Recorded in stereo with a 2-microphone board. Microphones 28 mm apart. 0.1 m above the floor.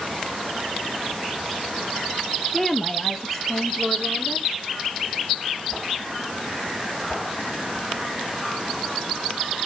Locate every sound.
2.5 s a woman speaking: 5° left (ahead or behind), 1.7 m; by 4.5 s 10° left (ahead or behind), 3.5 m